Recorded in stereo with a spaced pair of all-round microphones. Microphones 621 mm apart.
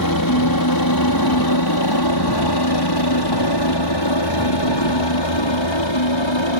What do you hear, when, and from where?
0.0 s a helicopter: 35° left (ahead or behind); by 6.6 s 45° left (ahead or behind)